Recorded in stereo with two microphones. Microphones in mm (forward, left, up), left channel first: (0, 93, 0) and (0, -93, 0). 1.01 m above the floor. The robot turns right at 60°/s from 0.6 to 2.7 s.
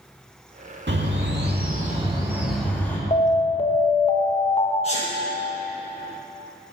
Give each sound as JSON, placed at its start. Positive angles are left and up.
{"t": 0.9, "sound": "a bird", "azimuth_deg": -100, "distance_m": 1.8}
{"t": 3.1, "sound": "an alarm", "side_deg": 35, "distance_m": 1.0}
{"t": 4.8, "sound": "a sneeze", "side_deg": 30, "distance_m": 1.3}